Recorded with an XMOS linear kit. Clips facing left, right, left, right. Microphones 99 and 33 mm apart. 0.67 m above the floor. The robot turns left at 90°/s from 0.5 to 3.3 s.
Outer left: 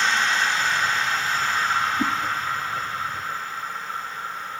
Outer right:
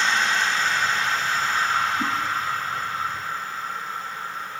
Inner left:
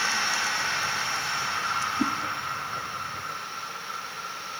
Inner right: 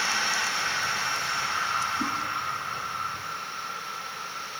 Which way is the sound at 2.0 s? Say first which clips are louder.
Outer left 2 dB, inner left 2 dB; 50° left (ahead or behind).